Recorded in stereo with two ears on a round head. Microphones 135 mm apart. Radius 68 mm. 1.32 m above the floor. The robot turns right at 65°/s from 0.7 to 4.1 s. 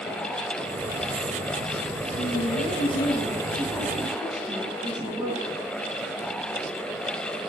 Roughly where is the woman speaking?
Ahead left.